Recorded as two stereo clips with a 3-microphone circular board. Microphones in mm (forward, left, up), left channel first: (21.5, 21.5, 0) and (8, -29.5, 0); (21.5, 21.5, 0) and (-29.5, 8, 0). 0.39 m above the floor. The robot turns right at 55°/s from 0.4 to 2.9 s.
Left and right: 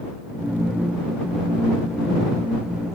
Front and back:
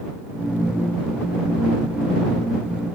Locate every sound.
Only background noise.